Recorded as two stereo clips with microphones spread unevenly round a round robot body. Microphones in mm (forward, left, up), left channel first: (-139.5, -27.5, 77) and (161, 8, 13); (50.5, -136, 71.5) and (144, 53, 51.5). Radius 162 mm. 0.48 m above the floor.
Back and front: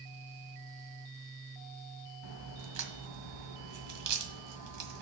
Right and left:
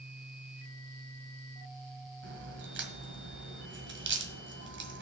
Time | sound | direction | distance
2.2 | a crack | 35° left | 1.7 m